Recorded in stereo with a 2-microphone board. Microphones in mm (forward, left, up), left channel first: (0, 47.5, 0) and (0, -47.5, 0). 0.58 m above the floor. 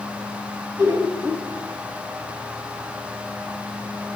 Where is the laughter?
30° right (ahead or behind), 5 m.